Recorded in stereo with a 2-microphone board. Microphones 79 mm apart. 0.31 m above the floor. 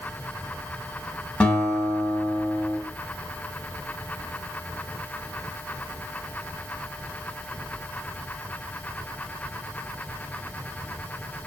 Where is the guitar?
15° left (ahead or behind), 0.7 m.